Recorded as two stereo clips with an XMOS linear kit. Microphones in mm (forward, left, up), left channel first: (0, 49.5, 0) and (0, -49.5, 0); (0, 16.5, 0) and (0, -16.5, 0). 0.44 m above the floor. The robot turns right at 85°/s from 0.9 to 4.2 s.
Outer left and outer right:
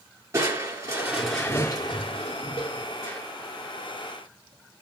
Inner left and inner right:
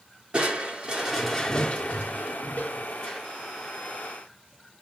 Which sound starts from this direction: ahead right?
Crushing, at 0.3 s.